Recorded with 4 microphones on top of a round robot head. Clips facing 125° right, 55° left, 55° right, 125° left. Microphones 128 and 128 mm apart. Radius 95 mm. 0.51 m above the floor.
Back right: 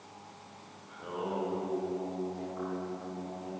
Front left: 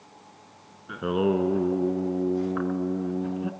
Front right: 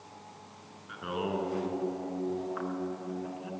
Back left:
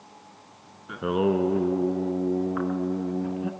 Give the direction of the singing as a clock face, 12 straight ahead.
9 o'clock.